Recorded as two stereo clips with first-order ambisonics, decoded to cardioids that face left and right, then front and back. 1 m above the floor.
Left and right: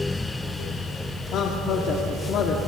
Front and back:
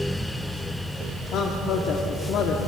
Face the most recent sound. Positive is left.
turn(degrees=45)